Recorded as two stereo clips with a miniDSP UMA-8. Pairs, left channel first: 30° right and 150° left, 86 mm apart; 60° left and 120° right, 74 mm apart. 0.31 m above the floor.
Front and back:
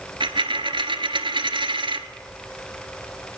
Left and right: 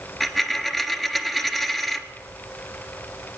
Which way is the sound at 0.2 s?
150° left.